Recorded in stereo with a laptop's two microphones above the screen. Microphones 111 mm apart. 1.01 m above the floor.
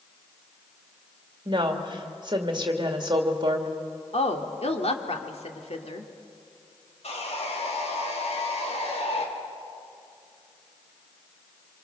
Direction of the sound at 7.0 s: 65° left (ahead or behind).